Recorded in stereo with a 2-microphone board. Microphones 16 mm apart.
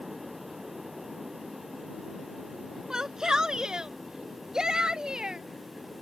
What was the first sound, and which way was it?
A shout, 35° right (ahead or behind).